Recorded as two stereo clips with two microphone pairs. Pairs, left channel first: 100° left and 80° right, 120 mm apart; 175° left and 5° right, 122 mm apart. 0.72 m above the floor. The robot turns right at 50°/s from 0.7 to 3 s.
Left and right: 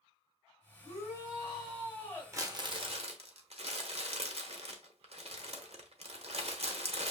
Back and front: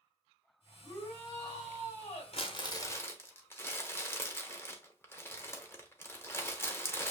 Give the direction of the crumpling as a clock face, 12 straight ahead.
5 o'clock.